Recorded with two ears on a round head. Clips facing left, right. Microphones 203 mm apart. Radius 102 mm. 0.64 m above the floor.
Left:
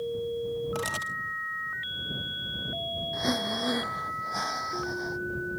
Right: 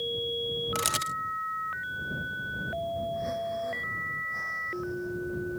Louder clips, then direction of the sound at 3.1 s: Left 2 dB; 80° left.